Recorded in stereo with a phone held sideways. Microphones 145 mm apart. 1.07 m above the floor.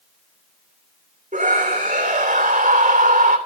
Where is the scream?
55° right (ahead or behind), 3 m.